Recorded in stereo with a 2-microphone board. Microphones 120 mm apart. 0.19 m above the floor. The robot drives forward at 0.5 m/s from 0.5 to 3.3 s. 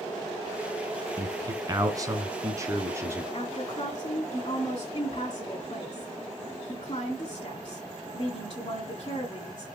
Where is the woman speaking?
40° left (ahead or behind), 2.5 m.